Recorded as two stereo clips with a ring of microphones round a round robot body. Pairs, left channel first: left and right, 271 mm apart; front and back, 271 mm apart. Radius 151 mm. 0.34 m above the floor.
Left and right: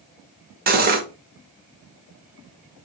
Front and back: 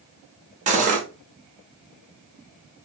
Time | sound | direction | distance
0.7 | cutlery clinking | 130° right | 0.6 m